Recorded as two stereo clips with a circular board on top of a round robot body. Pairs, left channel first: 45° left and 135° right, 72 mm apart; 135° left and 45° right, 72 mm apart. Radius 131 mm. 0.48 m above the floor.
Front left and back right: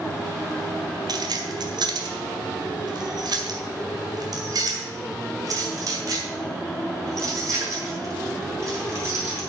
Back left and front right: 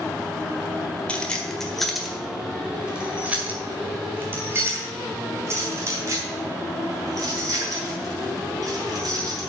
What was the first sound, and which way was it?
Keys jangling, 150° right.